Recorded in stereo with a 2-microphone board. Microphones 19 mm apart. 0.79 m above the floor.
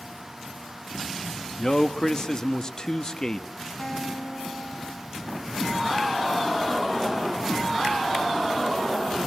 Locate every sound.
1.6 s a man speaking: 35° left (ahead or behind), 1.0 m
3.8 s a guitar: 15° left (ahead or behind), 4.5 m